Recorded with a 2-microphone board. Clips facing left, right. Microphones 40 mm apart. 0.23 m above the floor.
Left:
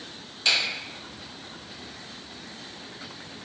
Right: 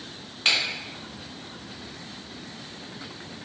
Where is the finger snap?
40° right (ahead or behind), 1.8 m.